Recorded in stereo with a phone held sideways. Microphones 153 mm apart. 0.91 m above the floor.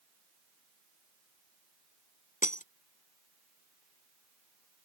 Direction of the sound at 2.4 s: 60° left (ahead or behind).